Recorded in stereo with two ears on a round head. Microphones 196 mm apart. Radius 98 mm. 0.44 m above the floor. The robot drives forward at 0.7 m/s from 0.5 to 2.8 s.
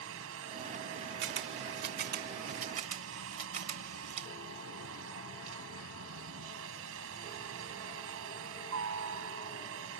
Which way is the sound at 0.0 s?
65° right (ahead or behind).